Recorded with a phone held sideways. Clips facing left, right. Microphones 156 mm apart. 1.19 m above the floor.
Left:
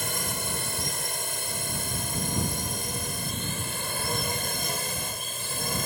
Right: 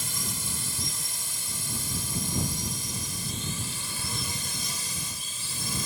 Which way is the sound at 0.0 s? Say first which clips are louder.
Left 5 dB; 60° left (ahead or behind).